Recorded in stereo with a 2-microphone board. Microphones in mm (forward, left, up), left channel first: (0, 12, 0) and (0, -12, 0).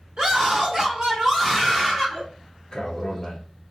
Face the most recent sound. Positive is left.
turn(degrees=20)  # may be behind; listen again after turning